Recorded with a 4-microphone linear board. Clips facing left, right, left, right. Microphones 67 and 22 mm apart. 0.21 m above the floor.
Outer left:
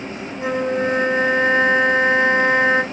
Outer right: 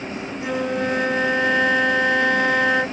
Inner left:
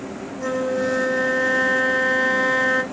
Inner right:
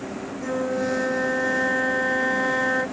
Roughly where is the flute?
Left.